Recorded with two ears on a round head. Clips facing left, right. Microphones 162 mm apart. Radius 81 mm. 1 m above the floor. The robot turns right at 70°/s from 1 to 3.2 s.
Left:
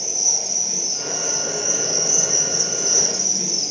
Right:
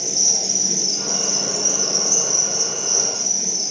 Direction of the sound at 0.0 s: 90° right.